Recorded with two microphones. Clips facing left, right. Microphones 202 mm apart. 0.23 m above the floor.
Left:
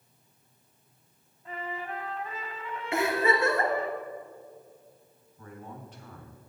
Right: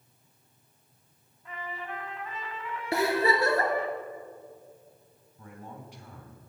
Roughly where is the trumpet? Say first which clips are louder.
Left 3 dB; left.